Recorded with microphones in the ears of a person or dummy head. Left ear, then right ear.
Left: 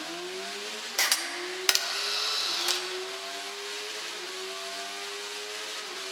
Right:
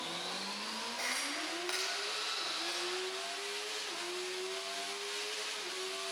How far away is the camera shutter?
About 0.9 m.